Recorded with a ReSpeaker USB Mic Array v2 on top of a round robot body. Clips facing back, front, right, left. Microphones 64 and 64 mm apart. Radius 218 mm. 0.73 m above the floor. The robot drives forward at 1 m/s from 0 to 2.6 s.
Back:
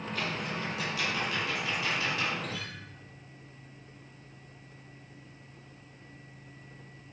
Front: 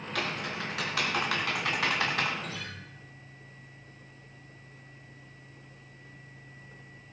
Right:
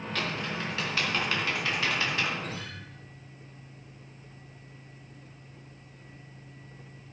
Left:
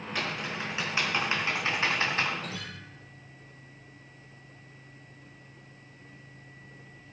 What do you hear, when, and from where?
0.1 s typing on a keyboard: 15° left, 3.5 m; by 2.3 s 35° left, 1.7 m
2.4 s a guitar: 85° left, 5 m; by 2.8 s 90° left, 5 m